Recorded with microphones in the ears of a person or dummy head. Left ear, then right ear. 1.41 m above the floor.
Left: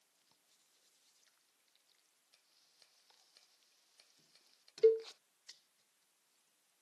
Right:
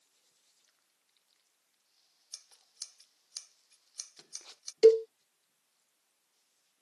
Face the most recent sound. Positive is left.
turn(degrees=-65)  # may be behind; listen again after turning